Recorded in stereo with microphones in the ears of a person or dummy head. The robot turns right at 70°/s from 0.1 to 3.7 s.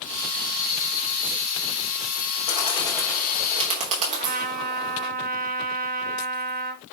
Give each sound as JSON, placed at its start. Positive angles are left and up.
{"t": 2.5, "sound": "a bird", "side_deg": 50, "distance_m": 4.0}
{"t": 4.1, "sound": "a trumpet", "side_deg": -45, "distance_m": 1.2}